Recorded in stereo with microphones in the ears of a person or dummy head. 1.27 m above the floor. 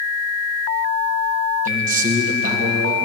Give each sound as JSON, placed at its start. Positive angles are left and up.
{"t": 1.6, "sound": "a man speaking", "side_deg": -45, "distance_m": 2.0}